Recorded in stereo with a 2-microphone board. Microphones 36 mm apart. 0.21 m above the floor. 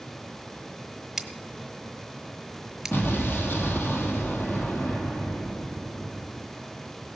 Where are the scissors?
5° right (ahead or behind), 1.2 m.